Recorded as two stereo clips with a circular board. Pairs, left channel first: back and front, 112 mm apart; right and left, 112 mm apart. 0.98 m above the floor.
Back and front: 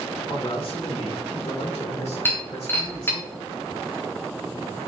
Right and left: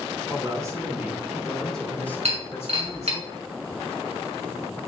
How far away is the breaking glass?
About 4 m.